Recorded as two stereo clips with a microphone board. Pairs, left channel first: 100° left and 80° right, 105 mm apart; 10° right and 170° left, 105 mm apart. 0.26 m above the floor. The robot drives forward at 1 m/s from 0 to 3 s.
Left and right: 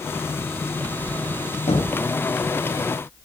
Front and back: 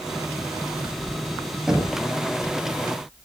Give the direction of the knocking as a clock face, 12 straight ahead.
9 o'clock.